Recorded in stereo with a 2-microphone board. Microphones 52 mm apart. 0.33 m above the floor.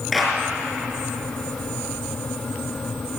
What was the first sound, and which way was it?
A clap, centre (ahead or behind).